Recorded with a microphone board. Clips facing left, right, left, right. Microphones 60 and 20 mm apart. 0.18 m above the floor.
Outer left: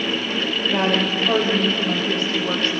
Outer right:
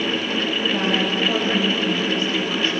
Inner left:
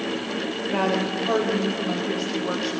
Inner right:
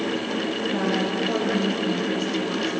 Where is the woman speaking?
55° left (ahead or behind), 5.5 m; by 2.8 s 45° left (ahead or behind), 7.5 m.